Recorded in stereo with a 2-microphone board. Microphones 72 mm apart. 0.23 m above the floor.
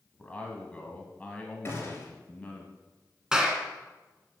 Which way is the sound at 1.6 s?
35° left (ahead or behind).